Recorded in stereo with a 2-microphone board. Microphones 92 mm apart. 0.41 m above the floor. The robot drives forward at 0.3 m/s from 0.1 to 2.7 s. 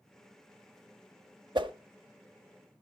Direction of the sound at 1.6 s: 55° right (ahead or behind).